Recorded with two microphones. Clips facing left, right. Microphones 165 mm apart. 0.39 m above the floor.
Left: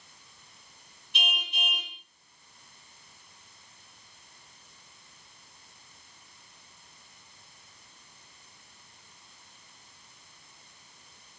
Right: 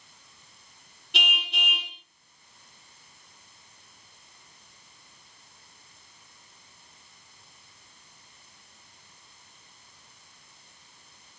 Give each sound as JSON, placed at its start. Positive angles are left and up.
{"t": 1.1, "sound": "a car horn", "side_deg": -75, "distance_m": 2.0}